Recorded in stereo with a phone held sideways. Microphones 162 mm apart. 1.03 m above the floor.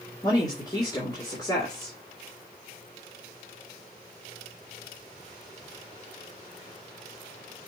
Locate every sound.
0.2 s a woman speaking: 25° left (ahead or behind), 2.5 m